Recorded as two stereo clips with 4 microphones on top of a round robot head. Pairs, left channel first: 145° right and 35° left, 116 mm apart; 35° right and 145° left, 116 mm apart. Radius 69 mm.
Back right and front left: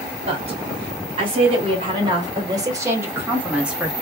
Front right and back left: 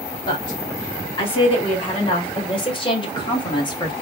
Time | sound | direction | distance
0.3 | a woman speaking | 5° left | 2.5 m